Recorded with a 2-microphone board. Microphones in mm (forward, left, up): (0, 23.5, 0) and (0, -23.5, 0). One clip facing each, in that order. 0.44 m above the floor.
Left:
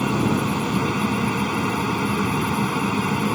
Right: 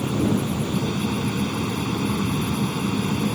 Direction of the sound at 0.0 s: 70° left (ahead or behind).